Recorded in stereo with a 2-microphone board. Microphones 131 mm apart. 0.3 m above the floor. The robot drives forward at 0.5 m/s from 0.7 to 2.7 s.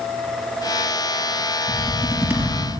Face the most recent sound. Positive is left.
turn(degrees=-15)  # may be behind; listen again after turning